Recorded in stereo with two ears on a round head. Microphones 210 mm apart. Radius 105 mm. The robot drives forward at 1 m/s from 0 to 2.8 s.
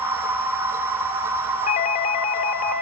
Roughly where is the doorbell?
Left.